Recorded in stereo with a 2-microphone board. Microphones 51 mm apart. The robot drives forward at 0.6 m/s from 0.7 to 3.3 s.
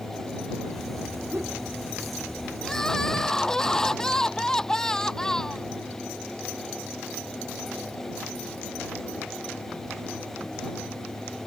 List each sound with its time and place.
1.3 s a whoosh: 45° right (ahead or behind)
2.6 s crying: 10° left (ahead or behind)